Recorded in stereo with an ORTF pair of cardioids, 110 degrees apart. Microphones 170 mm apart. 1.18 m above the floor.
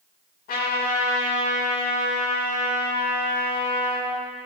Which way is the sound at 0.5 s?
65° left.